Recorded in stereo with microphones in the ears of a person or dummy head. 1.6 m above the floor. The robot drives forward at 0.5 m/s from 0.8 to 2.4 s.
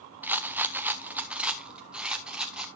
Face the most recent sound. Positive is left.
turn(degrees=-5)  # may be behind; listen again after turning